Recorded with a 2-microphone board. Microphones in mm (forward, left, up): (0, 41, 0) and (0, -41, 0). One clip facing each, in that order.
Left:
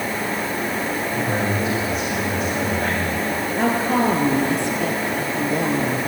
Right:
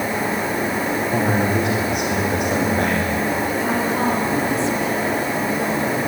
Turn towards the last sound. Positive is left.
turn(degrees=55)  # may be behind; listen again after turning